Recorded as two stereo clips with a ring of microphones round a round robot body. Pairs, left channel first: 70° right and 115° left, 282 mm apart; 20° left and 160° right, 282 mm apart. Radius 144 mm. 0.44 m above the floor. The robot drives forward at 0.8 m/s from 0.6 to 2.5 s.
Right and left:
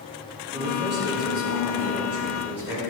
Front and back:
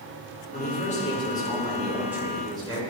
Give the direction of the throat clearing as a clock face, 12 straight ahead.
No throat clearing in this recording.